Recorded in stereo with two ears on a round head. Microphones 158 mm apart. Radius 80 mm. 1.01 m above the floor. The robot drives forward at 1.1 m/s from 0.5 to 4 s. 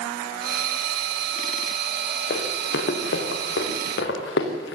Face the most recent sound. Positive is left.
turn(degrees=75)  # may be behind; listen again after turning